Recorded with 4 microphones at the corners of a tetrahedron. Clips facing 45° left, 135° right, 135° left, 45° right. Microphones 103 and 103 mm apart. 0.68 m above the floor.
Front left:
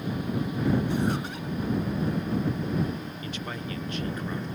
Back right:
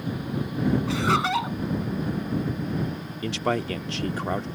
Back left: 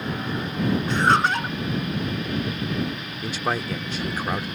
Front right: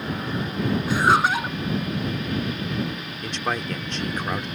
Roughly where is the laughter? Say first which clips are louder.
Back right 5 dB, front right 2 dB; behind right.